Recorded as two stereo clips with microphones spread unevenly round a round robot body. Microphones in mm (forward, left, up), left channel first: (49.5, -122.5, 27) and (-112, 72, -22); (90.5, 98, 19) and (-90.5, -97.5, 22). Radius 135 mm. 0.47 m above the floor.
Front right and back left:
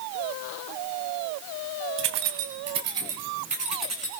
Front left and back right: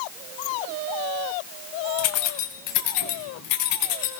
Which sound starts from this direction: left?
Keys jangling, at 2.0 s.